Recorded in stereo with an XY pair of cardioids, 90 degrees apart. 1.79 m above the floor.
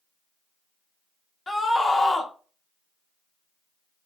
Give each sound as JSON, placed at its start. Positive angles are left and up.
{"t": 1.5, "sound": "a scream", "azimuth_deg": 30, "distance_m": 0.7}